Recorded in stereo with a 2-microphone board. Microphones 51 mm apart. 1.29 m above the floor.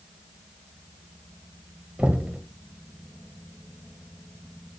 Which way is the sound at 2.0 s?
20° right (ahead or behind).